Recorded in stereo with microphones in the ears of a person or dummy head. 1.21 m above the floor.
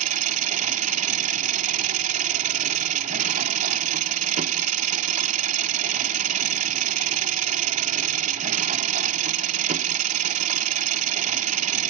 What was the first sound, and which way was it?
An engine running, 45° right (ahead or behind).